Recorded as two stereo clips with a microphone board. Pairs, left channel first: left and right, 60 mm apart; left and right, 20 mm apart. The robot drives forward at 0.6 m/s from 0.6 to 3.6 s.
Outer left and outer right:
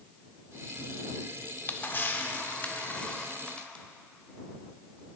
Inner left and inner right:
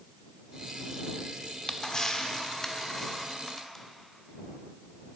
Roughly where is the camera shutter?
Left.